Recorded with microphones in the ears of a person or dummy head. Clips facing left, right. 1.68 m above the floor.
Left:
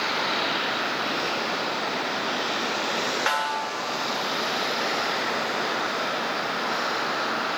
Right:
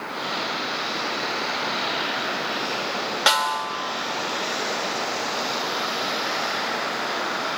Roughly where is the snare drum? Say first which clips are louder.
Right 3 dB; right.